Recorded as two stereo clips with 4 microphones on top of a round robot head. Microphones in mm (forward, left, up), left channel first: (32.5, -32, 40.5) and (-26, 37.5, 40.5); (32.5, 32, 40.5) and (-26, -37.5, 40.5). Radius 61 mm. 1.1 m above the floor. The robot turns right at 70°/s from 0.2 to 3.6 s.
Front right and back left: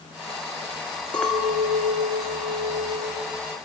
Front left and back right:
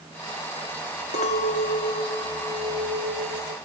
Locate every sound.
1.1 s a clink: 30° left, 1.1 m; by 3.6 s 160° right, 1.1 m